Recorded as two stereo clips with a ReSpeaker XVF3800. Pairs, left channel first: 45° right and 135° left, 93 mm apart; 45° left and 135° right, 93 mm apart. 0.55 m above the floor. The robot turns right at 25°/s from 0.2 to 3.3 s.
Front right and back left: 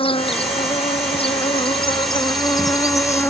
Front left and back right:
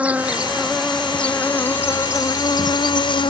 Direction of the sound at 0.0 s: 60° right.